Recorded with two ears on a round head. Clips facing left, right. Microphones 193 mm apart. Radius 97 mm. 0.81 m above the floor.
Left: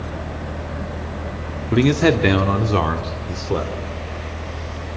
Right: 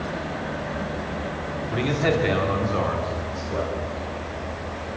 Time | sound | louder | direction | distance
1.7 | a man speaking | left 8 dB | 60° left (ahead or behind) | 1.9 m